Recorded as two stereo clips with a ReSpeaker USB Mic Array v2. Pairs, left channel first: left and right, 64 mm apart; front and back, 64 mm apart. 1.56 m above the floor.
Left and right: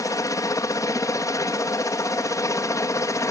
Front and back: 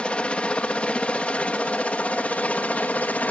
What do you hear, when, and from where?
0.0 s a helicopter: 70° left; by 3.3 s 65° left